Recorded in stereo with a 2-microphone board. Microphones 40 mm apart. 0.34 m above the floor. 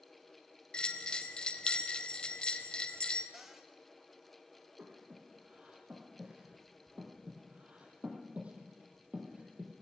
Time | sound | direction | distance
0.7 | a bell | 25° left (ahead or behind) | 2.0 m
3.3 | a cupboard door | 10° right (ahead or behind) | 2 m
4.8 | breathing | 30° right (ahead or behind) | 6 m